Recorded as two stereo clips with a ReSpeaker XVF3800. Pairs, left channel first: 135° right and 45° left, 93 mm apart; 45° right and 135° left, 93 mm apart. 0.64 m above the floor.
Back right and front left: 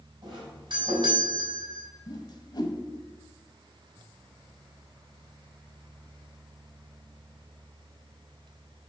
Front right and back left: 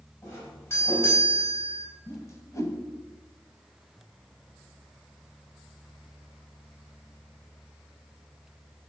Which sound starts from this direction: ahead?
A doorbell, at 0.2 s.